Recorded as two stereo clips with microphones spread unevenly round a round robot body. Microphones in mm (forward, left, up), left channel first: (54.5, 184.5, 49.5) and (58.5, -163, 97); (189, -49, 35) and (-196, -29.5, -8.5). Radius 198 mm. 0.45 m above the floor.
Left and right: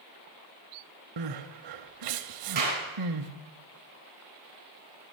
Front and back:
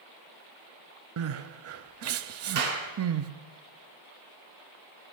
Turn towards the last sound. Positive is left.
turn(degrees=-155)